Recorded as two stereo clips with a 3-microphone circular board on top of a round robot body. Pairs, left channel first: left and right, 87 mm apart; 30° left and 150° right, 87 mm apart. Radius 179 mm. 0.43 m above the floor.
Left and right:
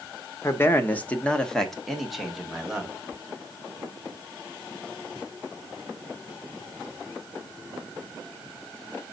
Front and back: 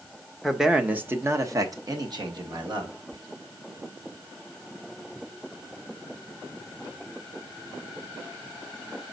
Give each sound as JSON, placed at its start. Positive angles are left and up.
{"t": 0.4, "sound": "a man speaking", "azimuth_deg": 115, "distance_m": 1.1}
{"t": 3.1, "sound": "whispering", "azimuth_deg": -125, "distance_m": 2.5}